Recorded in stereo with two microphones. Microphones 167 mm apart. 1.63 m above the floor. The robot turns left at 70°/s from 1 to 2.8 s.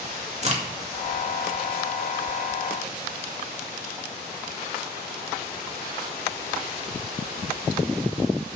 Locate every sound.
0.4 s a crack: 40° right (ahead or behind), 2 m